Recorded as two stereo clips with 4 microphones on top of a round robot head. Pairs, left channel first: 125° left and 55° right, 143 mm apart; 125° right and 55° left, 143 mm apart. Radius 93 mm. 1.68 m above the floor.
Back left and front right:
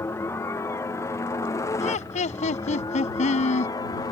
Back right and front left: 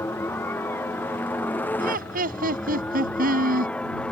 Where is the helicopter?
175° left; by 4.1 s 160° left.